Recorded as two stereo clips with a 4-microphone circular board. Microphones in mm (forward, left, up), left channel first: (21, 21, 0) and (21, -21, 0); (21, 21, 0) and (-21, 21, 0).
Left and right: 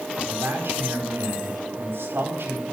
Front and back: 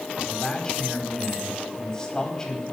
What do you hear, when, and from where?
0.2 s a man speaking: 70° right, 4.5 m